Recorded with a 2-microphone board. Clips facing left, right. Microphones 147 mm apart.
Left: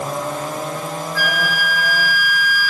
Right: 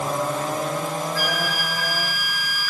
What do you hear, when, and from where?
1.1 s a flute: 30° right (ahead or behind), 1.7 m